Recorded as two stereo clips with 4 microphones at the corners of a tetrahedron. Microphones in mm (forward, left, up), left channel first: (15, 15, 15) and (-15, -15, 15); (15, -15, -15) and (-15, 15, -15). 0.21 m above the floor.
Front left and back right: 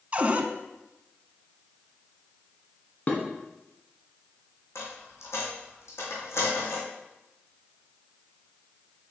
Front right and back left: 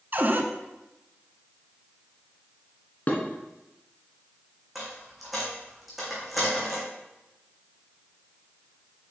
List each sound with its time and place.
0.1 s a cupboard door: 170° left, 0.6 m
3.1 s dishes clattering: straight ahead, 1.6 m
4.8 s a dropped coin: 45° left, 2.5 m